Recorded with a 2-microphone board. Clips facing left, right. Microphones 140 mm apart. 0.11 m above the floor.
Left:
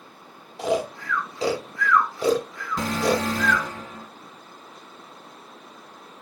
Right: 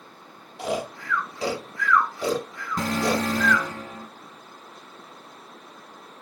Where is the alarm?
45° right (ahead or behind), 2 m.